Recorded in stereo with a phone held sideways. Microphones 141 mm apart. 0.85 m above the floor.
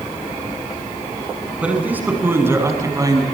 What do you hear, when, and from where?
1.6 s a man speaking: 10° right (ahead or behind), 7 m; by 3.2 s 30° right (ahead or behind), 5.5 m